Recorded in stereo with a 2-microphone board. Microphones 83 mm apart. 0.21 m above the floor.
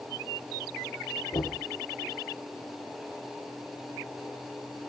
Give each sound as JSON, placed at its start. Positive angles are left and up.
{"t": 1.3, "sound": "knocking", "side_deg": 45, "distance_m": 2.0}